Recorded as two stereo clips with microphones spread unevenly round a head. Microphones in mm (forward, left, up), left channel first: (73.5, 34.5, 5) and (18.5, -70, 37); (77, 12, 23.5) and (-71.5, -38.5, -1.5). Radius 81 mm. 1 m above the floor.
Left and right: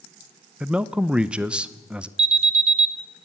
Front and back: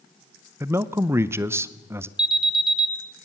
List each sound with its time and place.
0.6 s a man speaking: 145° left, 0.6 m
2.2 s an alarm: 85° right, 1.6 m